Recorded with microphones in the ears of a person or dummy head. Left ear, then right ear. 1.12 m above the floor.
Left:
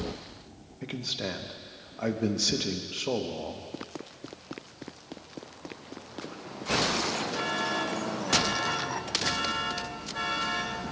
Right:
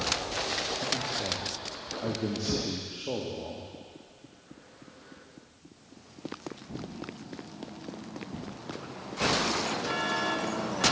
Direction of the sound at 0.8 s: 60° left (ahead or behind).